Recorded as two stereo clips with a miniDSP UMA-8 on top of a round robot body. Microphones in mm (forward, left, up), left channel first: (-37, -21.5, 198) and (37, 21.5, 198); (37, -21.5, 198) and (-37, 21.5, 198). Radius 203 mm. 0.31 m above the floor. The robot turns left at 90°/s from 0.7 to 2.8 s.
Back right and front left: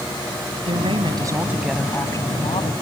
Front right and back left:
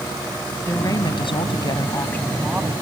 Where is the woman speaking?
35° left; by 2.7 s 150° right.